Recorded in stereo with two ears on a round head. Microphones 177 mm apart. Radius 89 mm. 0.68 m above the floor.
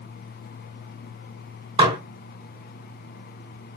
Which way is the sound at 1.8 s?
25° right (ahead or behind).